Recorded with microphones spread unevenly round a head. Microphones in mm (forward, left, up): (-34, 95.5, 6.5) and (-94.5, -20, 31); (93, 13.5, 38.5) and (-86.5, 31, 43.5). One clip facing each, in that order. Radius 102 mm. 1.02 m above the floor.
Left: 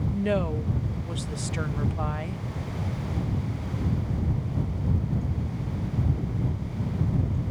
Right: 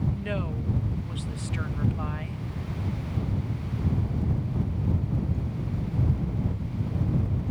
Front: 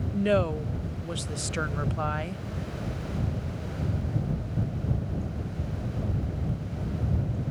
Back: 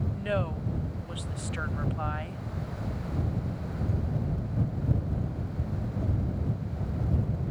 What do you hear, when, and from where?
0.1 s a woman speaking: 20° left